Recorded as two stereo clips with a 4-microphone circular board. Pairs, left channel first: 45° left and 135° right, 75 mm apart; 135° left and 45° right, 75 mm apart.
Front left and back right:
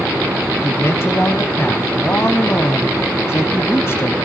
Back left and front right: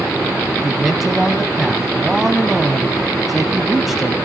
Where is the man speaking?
40° left, 1.2 m.